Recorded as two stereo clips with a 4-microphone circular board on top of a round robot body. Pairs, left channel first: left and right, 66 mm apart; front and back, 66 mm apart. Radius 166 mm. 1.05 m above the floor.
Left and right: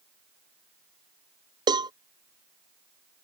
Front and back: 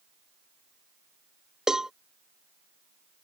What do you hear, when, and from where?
1.7 s a cowbell: 95° right